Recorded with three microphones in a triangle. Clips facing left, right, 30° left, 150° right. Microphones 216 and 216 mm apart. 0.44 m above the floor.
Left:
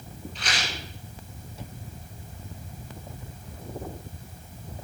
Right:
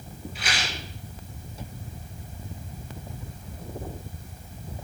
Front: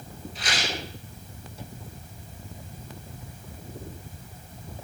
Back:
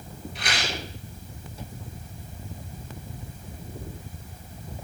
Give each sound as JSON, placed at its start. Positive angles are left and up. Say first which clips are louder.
{"t": 0.3, "sound": "a rattle", "louder": "even, even", "azimuth_deg": -170, "distance_m": 2.0}